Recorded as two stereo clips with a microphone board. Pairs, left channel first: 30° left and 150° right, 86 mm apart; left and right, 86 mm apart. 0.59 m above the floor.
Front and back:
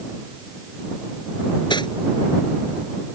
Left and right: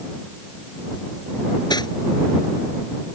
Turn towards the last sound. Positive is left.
turn(degrees=55)